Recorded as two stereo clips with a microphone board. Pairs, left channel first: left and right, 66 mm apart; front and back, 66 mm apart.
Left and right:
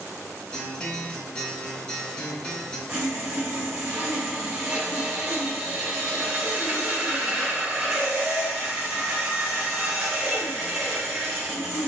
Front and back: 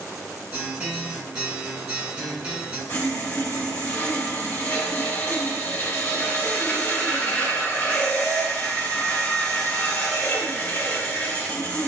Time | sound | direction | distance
0.5 | a guitar | 140° left | 1.0 m
2.9 | sawing | 25° right | 1.5 m